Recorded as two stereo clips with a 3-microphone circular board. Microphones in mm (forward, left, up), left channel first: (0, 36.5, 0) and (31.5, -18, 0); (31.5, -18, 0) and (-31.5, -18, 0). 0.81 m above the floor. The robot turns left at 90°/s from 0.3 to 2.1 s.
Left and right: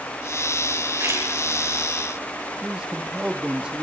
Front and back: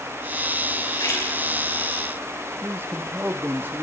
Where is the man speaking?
130° right, 1.1 m.